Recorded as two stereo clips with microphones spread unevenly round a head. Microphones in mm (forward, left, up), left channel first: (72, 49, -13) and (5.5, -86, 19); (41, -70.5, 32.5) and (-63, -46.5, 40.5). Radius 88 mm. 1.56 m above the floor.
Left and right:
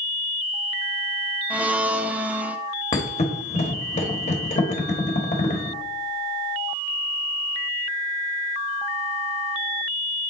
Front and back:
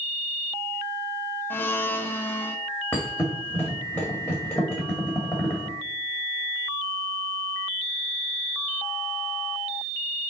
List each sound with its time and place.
1.5 s a blender: 75° right, 0.5 m
2.9 s a thud: 65° left, 1.4 m